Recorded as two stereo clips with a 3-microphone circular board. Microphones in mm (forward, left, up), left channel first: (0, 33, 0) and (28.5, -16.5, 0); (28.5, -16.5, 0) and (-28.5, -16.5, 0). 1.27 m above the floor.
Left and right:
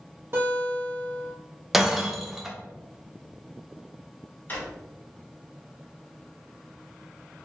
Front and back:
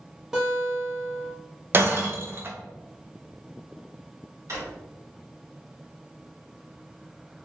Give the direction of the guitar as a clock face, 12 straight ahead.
3 o'clock.